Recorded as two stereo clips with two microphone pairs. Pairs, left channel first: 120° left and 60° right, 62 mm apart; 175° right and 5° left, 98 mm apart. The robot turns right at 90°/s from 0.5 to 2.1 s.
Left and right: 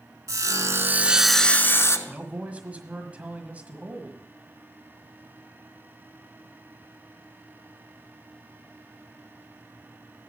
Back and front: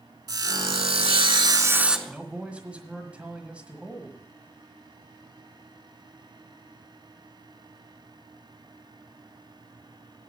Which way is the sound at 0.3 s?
40° right.